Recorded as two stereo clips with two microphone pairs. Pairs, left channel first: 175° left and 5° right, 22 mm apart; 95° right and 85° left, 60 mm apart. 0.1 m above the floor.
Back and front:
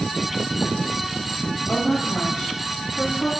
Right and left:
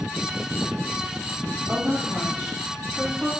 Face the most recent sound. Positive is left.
turn(degrees=175)